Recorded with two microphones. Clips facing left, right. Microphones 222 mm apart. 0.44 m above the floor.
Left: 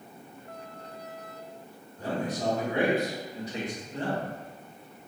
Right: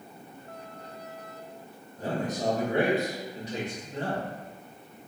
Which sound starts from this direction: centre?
A man speaking, at 2.0 s.